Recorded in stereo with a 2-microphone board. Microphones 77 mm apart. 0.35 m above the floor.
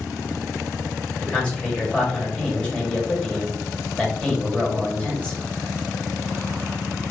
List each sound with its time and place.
1.2 s a man speaking: 20° left (ahead or behind), 1.7 m